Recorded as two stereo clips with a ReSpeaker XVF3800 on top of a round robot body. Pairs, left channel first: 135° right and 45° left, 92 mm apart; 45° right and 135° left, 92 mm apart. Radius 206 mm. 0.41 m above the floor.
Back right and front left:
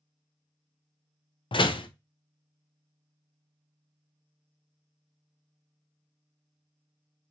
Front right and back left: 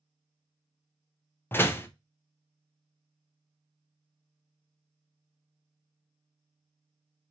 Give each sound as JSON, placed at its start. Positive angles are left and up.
{"t": 1.5, "sound": "a door slam", "azimuth_deg": -110, "distance_m": 0.7}